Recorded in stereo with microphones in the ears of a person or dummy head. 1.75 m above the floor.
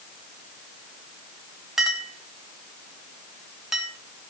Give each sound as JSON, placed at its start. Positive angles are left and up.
{"t": 1.8, "sound": "a clink", "side_deg": -5, "distance_m": 1.7}